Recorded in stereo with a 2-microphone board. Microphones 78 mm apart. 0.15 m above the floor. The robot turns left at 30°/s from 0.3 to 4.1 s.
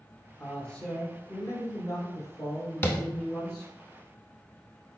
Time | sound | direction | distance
0.4 | a man speaking | 145° left | 1.2 m
2.8 | tapping | 25° left (ahead or behind) | 0.7 m